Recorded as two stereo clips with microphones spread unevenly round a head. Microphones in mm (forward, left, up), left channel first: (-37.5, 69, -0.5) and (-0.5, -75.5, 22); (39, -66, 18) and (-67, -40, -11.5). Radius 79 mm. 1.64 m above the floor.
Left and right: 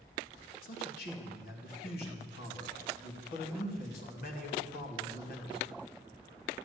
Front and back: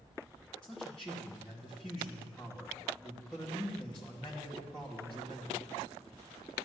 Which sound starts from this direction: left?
A man speaking, at 0.6 s.